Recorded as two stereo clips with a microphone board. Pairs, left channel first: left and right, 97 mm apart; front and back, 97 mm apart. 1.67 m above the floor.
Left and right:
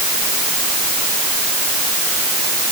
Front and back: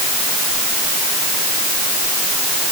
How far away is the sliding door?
I don't hear a sliding door.